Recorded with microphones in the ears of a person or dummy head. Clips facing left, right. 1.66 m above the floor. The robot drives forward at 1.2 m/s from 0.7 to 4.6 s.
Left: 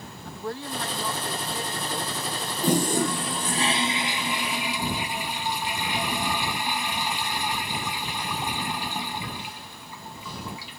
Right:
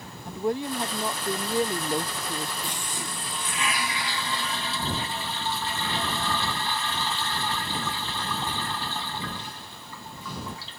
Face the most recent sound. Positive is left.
turn(degrees=15)  # may be behind; listen again after turning